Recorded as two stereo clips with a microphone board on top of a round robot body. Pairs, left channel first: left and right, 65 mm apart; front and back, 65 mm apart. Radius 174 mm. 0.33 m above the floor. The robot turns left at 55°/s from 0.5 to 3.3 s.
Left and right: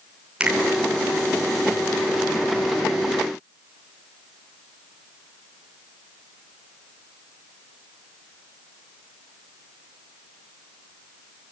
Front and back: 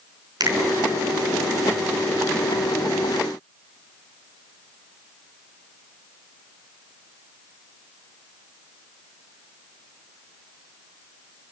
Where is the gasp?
No gasp in this recording.